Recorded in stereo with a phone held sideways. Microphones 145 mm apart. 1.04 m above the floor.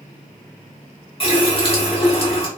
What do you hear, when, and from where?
1.2 s a running tap: 40° left (ahead or behind), 1.3 m